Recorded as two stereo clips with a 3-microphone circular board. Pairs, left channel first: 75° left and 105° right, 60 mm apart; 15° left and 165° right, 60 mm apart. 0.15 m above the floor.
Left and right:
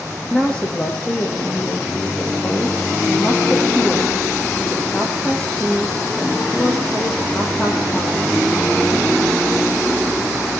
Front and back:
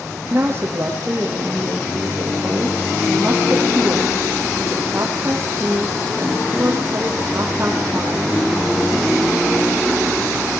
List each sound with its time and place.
0.3 s a woman speaking: 145° left, 6 m